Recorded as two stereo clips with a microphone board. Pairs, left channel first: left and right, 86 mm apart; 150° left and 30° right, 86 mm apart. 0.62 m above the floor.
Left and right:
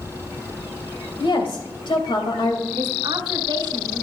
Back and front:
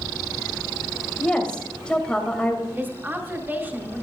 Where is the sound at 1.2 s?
70° left, 2.5 m.